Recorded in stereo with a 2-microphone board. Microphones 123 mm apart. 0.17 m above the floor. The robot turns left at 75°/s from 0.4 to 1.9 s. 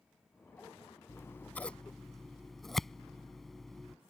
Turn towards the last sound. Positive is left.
turn(degrees=0)  # may be behind; listen again after turning